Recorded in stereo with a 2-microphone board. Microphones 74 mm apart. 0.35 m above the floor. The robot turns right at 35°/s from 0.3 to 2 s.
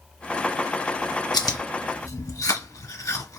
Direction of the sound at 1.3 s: 75° left (ahead or behind).